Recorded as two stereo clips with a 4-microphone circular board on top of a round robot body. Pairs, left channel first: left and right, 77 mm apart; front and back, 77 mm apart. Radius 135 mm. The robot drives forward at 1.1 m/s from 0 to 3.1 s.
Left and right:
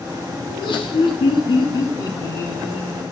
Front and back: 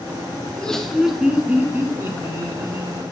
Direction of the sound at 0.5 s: 75° left.